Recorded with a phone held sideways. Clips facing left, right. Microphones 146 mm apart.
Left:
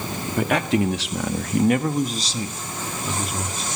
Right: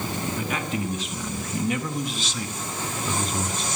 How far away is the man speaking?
About 1.9 m.